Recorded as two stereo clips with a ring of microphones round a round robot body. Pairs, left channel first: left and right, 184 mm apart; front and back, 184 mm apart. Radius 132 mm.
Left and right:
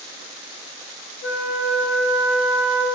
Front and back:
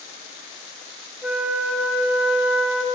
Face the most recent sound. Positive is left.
turn(degrees=100)